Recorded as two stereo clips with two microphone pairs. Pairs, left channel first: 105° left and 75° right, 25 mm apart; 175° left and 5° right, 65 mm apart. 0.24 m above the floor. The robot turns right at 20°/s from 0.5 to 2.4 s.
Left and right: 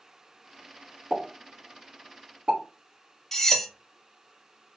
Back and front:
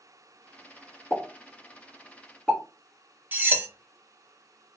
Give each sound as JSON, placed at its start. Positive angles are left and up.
{"t": 1.1, "sound": "a pop", "azimuth_deg": -135, "distance_m": 1.5}
{"t": 3.3, "sound": "cutlery clinking", "azimuth_deg": 25, "distance_m": 0.5}